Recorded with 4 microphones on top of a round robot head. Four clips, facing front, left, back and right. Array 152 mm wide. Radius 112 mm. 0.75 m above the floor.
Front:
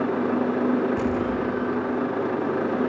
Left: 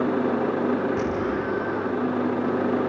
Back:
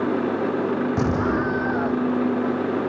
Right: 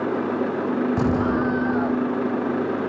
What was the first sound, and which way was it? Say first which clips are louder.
An explosion: right 4 dB, back 2 dB; 135° right.